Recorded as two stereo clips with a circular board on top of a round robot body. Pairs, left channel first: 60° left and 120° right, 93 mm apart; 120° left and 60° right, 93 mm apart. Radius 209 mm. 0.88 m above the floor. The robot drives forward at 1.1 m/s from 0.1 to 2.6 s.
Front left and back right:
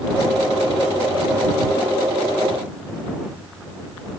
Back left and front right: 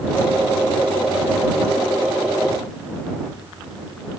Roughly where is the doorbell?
No doorbell in this recording.